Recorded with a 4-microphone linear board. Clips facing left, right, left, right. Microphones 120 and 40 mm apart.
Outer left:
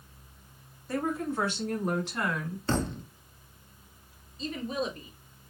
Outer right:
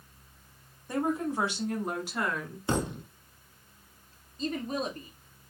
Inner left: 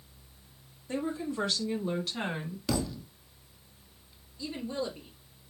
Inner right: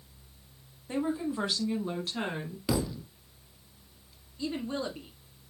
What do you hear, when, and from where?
0.9 s a woman speaking: 20° right (ahead or behind), 1.1 m; by 2.6 s centre (ahead or behind), 1.5 m
2.7 s a thud: 15° right (ahead or behind), 0.5 m
4.4 s a woman speaking: 45° right (ahead or behind), 1.8 m